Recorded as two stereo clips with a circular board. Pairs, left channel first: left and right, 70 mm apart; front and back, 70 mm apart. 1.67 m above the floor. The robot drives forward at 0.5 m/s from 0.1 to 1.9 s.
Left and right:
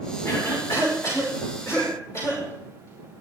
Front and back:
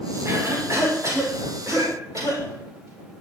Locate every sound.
0.2 s a cough: 130° left, 5.5 m; by 3.2 s 135° left, 6 m